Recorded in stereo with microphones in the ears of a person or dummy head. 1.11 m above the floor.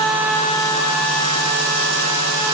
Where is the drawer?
No drawer in this recording.